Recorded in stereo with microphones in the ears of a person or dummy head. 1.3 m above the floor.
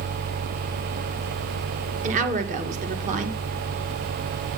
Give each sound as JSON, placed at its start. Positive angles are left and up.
{"t": 2.0, "sound": "a woman speaking", "side_deg": -35, "distance_m": 1.7}